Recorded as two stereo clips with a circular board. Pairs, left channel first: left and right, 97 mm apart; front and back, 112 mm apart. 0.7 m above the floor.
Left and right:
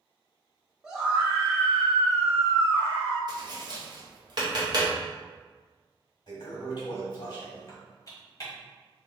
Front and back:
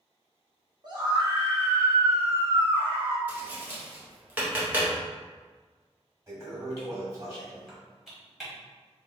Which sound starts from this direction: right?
Tapping, at 3.3 s.